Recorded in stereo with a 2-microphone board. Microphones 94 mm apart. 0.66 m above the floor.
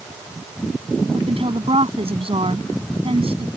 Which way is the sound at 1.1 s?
80° right.